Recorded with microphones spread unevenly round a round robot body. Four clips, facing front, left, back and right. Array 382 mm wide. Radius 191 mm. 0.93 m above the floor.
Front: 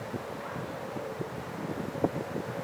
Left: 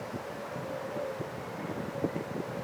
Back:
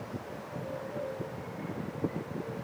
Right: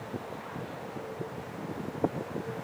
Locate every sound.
Only background noise.